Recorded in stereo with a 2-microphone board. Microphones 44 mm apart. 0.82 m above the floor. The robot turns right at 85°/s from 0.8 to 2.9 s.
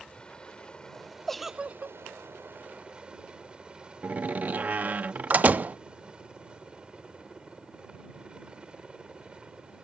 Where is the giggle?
170° left; by 2.0 s 130° right.